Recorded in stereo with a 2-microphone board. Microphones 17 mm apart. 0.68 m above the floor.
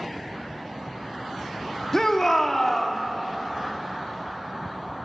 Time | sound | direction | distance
1.9 | a shout | 30° left (ahead or behind) | 1.4 m